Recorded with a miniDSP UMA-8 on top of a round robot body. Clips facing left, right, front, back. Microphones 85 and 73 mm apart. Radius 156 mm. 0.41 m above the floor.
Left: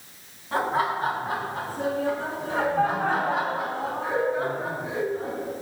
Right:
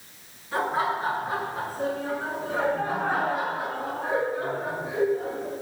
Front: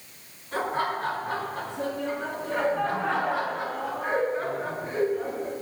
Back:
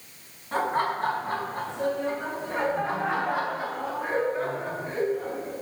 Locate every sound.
0.5 s laughter: 130° left, 4.5 m; by 5.5 s 80° left, 5 m